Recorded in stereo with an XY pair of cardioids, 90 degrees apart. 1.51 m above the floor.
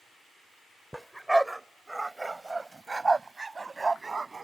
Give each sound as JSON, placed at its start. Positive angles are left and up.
{"t": 0.9, "sound": "a dog barking", "azimuth_deg": -5}